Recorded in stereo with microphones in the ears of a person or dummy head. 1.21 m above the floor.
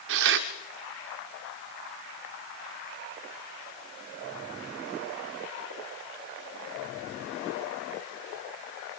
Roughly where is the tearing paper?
Right.